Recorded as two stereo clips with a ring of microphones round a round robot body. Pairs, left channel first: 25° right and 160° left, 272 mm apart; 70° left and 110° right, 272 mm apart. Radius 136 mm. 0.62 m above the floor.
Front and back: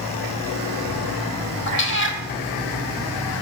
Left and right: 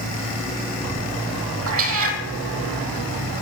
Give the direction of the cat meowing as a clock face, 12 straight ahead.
2 o'clock.